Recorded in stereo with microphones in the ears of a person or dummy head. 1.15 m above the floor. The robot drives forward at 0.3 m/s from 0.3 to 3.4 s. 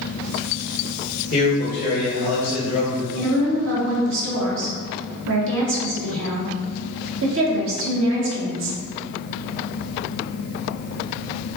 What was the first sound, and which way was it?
A man speaking, 45° left (ahead or behind).